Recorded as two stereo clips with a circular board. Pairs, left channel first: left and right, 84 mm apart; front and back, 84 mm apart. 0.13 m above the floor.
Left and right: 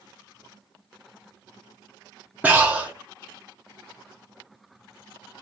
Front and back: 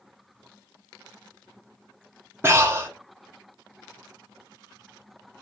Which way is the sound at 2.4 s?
145° right.